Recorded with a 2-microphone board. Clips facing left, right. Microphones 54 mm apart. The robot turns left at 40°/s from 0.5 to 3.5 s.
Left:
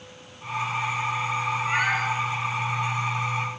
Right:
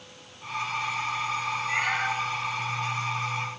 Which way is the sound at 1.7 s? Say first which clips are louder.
Left 3 dB; 80° left.